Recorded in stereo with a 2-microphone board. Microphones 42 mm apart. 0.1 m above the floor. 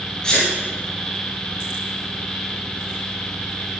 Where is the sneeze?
15° left (ahead or behind), 1.9 m.